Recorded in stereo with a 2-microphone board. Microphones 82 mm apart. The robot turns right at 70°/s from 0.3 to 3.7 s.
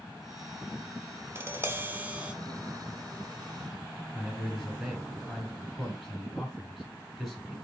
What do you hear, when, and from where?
1.4 s tapping: 25° right (ahead or behind), 0.7 m; by 2.3 s 15° right (ahead or behind), 0.7 m
4.1 s a man speaking: 5° left (ahead or behind), 3.5 m